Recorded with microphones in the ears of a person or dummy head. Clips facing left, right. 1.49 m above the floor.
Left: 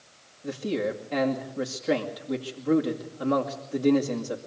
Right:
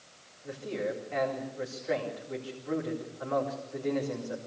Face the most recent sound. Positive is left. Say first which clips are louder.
# left 6 dB
turn(degrees=60)  # may be behind; listen again after turning